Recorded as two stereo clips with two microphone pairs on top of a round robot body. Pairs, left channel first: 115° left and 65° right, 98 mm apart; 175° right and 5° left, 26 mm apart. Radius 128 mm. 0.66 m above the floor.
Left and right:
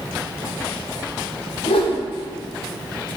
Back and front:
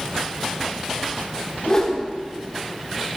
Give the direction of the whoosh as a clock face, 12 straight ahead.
7 o'clock.